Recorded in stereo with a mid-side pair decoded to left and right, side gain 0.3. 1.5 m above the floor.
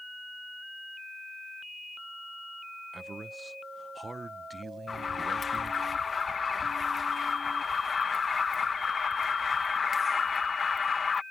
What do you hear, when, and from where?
2.9 s a man speaking: 40° right
4.9 s an alarm: 50° left